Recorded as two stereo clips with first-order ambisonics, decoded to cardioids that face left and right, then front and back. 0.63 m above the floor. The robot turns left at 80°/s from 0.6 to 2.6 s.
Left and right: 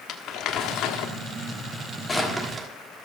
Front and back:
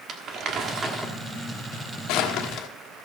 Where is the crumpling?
135° left, 1.4 m; by 2.7 s 25° right, 1.4 m.